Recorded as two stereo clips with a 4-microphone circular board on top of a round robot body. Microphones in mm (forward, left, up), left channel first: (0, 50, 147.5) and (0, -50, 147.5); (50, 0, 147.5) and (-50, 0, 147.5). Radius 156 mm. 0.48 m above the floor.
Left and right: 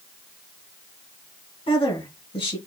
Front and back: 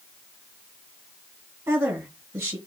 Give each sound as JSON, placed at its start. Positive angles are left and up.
{"t": 1.7, "sound": "a woman speaking", "azimuth_deg": 115, "distance_m": 3.0}